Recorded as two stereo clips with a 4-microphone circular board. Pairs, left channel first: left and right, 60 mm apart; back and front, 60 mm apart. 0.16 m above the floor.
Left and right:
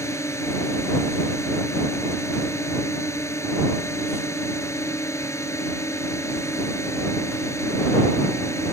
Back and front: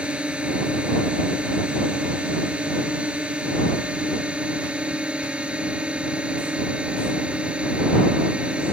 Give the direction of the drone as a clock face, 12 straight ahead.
10 o'clock.